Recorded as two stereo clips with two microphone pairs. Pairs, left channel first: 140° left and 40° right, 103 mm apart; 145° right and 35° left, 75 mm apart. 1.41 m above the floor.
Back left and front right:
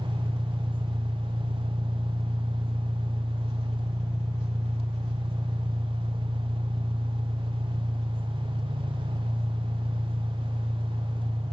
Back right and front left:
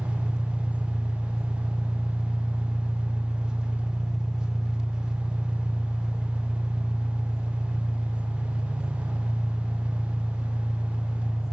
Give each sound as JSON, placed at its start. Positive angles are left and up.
{"t": 0.0, "sound": "an engine running", "azimuth_deg": -45, "distance_m": 1.9}